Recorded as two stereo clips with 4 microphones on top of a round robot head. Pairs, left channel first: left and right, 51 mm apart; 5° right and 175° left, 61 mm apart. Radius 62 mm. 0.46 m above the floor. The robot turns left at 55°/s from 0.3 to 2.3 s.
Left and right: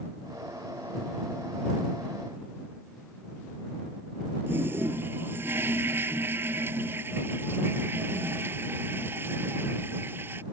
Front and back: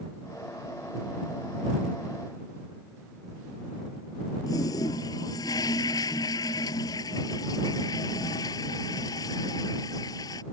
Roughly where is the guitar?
No guitar in this recording.